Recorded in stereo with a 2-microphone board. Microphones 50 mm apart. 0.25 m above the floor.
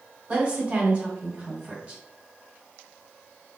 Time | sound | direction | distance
0.3 | a woman speaking | 30° right (ahead or behind) | 1.4 m